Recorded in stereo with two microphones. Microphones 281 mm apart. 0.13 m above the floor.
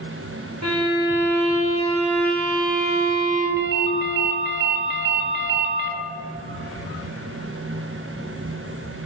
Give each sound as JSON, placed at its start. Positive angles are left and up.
{"t": 0.6, "sound": "a violin", "side_deg": -65, "distance_m": 2.0}
{"t": 3.6, "sound": "a ringtone", "side_deg": -40, "distance_m": 0.6}